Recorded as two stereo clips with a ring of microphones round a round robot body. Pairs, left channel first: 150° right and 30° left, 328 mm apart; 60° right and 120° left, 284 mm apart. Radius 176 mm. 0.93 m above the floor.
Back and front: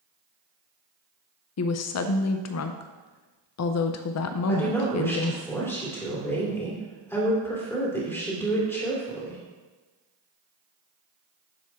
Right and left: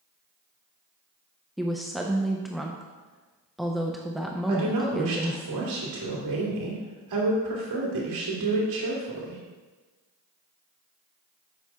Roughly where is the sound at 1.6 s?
Behind right.